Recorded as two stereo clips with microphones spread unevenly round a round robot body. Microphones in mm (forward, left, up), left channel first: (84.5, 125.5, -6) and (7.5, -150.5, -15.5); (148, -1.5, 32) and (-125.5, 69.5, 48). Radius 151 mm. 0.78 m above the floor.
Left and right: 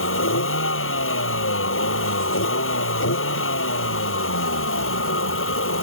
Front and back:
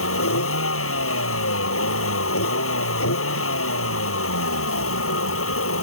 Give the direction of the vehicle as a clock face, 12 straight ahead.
11 o'clock.